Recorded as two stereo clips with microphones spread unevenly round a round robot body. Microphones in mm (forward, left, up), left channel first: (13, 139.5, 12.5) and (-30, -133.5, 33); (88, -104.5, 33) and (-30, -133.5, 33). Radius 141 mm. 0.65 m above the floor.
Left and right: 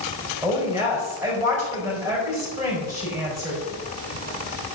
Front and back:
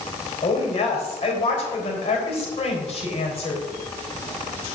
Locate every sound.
0.4 s a woman speaking: 20° right, 3.5 m